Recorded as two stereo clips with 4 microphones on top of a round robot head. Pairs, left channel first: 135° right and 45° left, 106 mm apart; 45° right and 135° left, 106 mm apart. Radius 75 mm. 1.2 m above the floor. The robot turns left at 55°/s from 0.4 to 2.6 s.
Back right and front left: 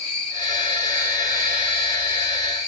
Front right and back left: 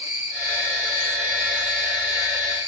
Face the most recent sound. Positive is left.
turn(degrees=70)